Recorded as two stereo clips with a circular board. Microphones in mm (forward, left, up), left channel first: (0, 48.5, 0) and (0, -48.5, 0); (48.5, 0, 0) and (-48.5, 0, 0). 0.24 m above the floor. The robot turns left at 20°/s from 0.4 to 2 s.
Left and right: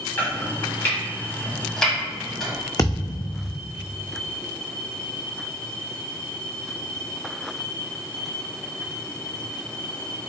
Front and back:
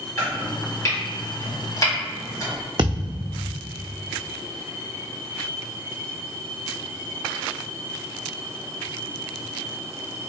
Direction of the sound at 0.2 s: 40° left.